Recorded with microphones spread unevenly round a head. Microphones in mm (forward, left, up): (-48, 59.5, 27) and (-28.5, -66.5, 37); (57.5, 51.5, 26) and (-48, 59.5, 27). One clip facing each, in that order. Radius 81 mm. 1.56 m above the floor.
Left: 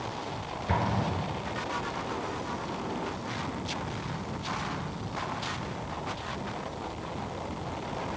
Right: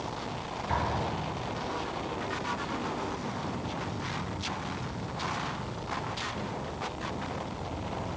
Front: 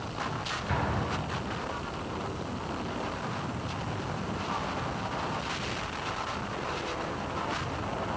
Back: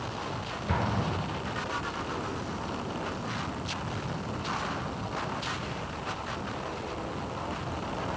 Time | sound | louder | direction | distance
0.7 | an explosion | left 2 dB, back 1 dB | 130° left | 3.5 m